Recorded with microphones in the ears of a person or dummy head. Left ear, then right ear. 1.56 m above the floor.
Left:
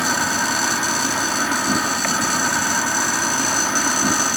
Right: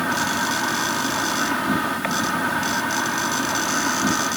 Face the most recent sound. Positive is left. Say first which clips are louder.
# left 2 dB
turn(degrees=5)  # may be behind; listen again after turning